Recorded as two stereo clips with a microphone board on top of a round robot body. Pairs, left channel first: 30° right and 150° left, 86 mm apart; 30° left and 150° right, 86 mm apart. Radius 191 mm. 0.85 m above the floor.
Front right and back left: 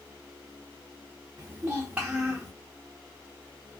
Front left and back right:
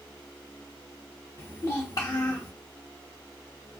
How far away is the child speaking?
About 0.6 m.